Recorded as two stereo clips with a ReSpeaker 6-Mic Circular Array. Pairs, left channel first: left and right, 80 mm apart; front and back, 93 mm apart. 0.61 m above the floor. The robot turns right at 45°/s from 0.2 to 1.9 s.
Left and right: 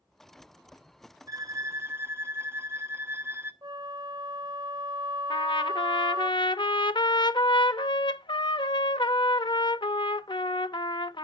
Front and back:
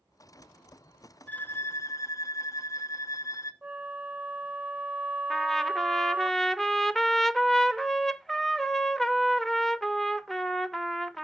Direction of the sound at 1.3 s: 70° right.